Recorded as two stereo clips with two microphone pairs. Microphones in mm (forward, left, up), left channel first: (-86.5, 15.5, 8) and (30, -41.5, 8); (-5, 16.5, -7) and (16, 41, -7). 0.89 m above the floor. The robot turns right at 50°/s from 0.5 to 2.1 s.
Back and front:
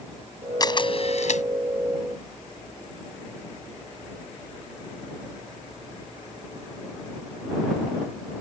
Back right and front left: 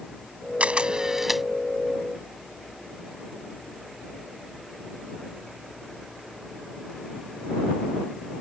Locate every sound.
0.6 s a camera shutter: 95° left; by 1.4 s 135° left